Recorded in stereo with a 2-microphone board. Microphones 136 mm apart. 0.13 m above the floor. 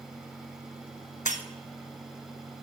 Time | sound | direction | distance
1.2 | breaking glass | 70° left (ahead or behind) | 1.1 m